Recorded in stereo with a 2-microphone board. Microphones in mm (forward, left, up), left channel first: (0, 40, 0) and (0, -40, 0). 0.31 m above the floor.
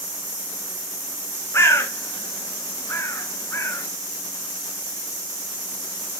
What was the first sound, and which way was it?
A bird, 40° left (ahead or behind).